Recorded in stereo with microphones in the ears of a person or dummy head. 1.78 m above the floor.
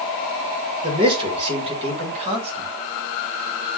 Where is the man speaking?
25° right (ahead or behind), 2.5 m; by 2.7 s 35° right (ahead or behind), 4 m.